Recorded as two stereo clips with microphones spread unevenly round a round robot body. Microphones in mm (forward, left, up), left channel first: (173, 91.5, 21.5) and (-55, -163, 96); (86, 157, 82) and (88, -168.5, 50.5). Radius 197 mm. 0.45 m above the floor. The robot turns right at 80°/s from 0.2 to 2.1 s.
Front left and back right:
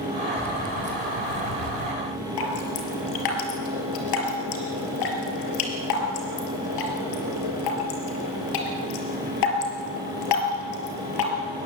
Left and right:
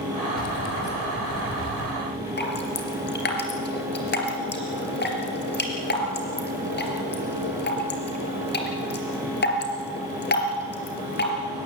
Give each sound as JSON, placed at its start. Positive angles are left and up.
{"t": 0.4, "sound": "keys jangling", "azimuth_deg": 120, "distance_m": 1.7}
{"t": 2.4, "sound": "dripping", "azimuth_deg": 30, "distance_m": 4.0}